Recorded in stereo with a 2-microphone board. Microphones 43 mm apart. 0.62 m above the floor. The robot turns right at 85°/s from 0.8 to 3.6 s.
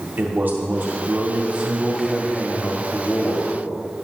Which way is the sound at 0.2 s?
105° right.